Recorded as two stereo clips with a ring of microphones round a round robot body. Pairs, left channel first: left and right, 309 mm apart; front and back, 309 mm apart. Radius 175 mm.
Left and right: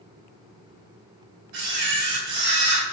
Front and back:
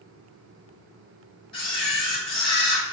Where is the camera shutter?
75° right, 3.5 m.